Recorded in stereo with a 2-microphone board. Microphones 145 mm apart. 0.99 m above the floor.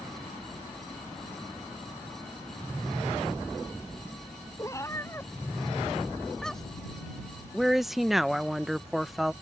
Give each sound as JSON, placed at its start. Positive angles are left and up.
{"t": 4.6, "sound": "a cat meowing", "side_deg": 25}
{"t": 7.5, "sound": "a woman speaking", "side_deg": 0}